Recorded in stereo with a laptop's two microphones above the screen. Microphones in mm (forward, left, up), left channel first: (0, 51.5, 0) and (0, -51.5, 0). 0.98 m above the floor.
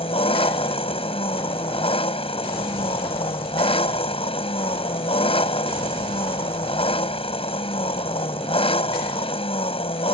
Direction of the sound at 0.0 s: 70° left (ahead or behind).